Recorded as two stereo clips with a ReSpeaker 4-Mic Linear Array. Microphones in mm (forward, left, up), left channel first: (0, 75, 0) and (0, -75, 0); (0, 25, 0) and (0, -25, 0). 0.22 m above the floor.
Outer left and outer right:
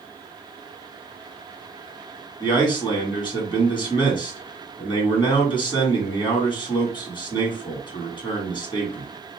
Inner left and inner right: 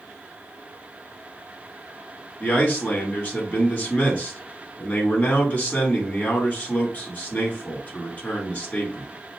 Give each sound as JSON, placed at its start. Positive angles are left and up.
{"t": 2.4, "sound": "a man speaking", "side_deg": 30, "distance_m": 2.0}